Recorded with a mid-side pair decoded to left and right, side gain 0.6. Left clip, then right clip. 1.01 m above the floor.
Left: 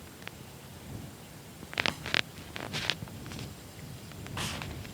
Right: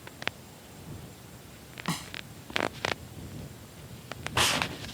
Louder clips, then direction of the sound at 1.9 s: Left 1 dB; 55° right.